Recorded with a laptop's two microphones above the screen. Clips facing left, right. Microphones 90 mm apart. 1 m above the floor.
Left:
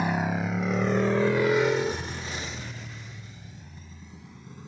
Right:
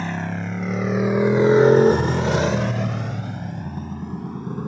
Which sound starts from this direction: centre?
A motorcycle, at 0.0 s.